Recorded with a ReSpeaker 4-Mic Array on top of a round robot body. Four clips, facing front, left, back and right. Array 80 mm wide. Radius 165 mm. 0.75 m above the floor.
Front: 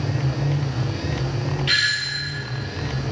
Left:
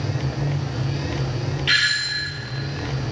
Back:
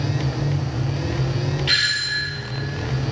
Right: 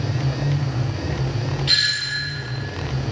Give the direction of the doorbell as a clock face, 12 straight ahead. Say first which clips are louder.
Left 4 dB, even; 9 o'clock.